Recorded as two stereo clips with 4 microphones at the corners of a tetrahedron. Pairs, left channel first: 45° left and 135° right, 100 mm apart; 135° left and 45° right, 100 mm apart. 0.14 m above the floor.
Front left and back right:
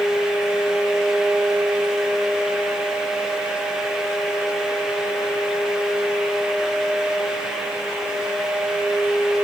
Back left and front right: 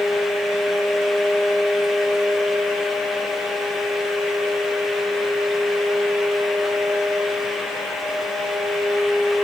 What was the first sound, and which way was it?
Only background noise.